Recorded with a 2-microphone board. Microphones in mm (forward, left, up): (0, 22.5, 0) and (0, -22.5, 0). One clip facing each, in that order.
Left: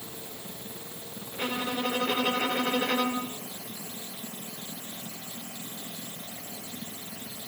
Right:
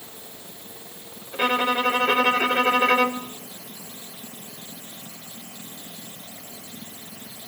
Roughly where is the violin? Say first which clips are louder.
Right 10 dB; right.